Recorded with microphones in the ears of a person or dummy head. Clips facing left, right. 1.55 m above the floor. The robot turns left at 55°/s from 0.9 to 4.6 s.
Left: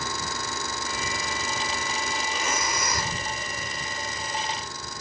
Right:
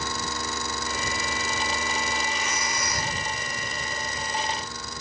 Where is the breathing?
130° left; by 3.2 s 80° left.